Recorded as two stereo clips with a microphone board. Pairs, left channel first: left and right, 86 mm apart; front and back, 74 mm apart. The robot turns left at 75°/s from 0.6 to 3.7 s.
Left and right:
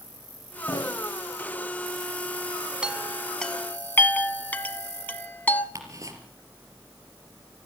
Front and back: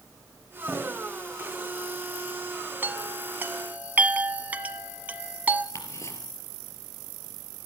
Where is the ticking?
40° right, 4.5 m.